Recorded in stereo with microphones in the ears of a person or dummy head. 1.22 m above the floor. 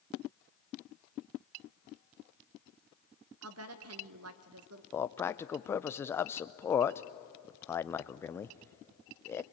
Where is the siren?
No siren in this recording.